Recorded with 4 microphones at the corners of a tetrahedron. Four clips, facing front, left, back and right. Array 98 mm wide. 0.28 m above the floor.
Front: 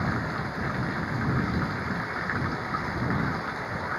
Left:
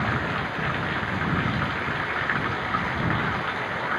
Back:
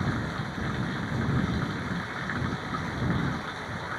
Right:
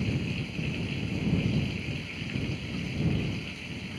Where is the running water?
80° left.